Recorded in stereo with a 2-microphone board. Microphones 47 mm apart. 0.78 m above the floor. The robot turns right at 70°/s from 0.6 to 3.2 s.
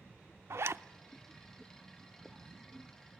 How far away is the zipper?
About 0.5 m.